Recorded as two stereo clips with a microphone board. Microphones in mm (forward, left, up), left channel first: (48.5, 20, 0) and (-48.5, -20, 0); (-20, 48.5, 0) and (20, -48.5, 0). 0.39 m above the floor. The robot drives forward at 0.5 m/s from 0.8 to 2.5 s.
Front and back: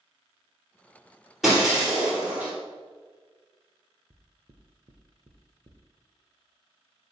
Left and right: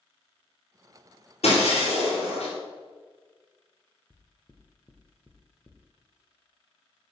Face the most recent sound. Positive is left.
turn(degrees=-175)